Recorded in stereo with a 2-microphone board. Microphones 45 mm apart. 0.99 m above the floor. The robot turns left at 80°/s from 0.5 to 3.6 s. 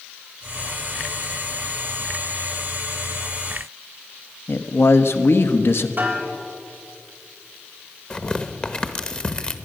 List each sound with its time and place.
4.5 s a man speaking: 65° left (ahead or behind), 0.9 m
6.0 s a snare drum: 40° right (ahead or behind), 3.5 m
8.1 s tearing paper: 25° left (ahead or behind), 1.0 m